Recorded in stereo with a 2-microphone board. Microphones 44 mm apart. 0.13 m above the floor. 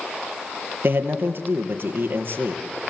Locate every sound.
0.8 s a man speaking: 50° right (ahead or behind), 3.5 m